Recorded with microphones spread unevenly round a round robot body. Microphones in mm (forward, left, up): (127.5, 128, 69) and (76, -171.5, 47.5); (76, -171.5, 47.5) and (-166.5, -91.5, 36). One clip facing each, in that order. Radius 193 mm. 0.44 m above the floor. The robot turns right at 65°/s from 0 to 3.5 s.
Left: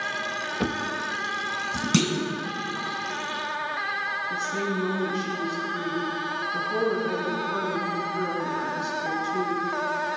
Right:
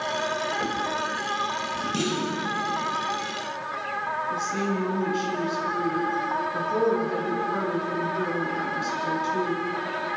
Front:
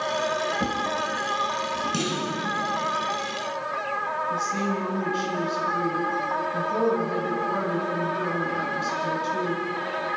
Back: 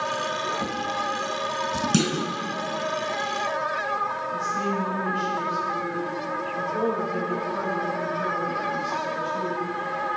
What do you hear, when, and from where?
0.6 s a drawer: 50° left, 1.1 m; by 1.9 s 135° left, 1.1 m
1.9 s a clunk: 115° left, 1.8 m; by 2.3 s 140° left, 1.8 m
4.3 s a woman speaking: 5° right, 5.5 m